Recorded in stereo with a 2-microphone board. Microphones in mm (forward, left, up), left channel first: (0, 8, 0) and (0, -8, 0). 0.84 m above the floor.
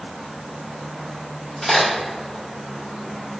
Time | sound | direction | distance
1.6 | a crack | 5° left (ahead or behind) | 1.5 m